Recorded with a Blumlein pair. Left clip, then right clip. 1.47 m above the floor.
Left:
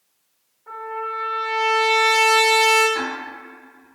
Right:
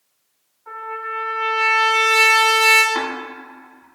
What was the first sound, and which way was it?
A trumpet, 65° right.